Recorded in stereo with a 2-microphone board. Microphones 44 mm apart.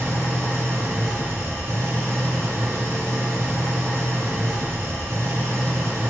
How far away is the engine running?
About 2.5 m.